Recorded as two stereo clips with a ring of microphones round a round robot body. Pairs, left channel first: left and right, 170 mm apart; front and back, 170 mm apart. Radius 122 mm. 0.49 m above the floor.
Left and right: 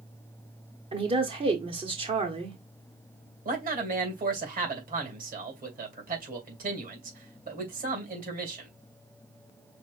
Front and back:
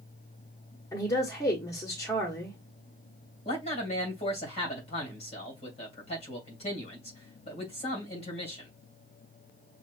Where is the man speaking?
60° right, 2.5 m.